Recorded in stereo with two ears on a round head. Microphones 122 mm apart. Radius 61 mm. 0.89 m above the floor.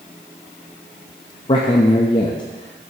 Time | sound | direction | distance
1.5 | a man speaking | 35° left (ahead or behind) | 0.6 m